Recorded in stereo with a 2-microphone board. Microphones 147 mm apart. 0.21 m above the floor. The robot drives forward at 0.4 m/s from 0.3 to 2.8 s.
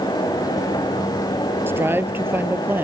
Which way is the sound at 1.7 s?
15° right (ahead or behind).